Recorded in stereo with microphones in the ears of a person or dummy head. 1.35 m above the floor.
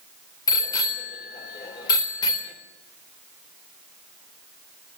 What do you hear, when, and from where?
0.5 s a bicycle bell: 25° left (ahead or behind), 3.5 m